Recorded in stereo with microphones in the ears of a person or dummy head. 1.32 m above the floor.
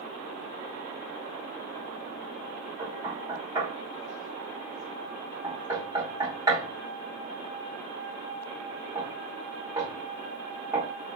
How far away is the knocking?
About 2 m.